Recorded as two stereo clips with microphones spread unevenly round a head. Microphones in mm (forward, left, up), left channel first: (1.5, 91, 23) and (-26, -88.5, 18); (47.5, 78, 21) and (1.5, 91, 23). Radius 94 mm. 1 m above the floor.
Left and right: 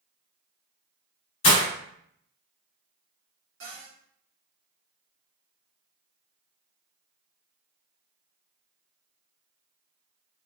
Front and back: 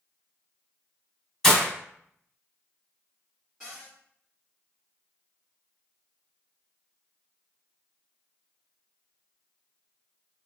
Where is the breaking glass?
55° left, 1.0 m.